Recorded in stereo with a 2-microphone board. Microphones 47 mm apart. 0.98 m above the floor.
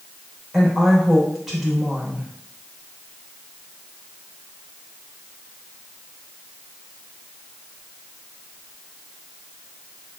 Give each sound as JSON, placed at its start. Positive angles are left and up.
{"t": 0.5, "sound": "a woman speaking", "side_deg": -5, "distance_m": 3.5}